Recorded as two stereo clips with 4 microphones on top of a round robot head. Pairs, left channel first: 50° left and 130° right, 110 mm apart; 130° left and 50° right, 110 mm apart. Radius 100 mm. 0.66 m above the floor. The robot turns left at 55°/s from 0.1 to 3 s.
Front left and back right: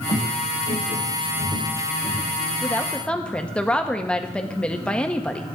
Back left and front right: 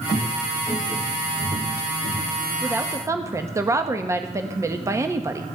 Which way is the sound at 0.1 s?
85° left.